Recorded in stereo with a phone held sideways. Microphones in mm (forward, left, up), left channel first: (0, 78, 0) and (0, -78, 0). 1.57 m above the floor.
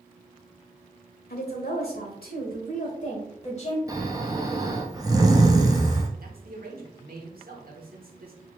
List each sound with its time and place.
1.3 s a woman speaking: 85° left, 1.1 m; by 3.8 s 45° left (ahead or behind), 1.7 m
3.9 s snoring: 25° right (ahead or behind), 0.7 m
6.2 s a man speaking: 70° right (ahead or behind), 1.1 m